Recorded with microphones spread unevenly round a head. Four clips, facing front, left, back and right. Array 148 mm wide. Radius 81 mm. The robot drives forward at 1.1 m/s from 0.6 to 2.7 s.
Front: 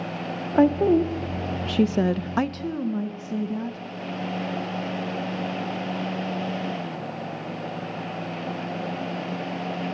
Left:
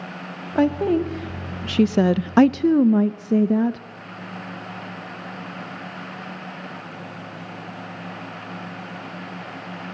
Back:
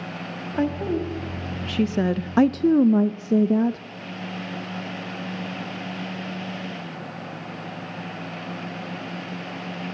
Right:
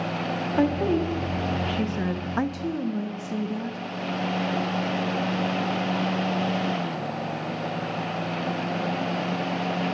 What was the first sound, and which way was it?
A woman speaking, 15° left.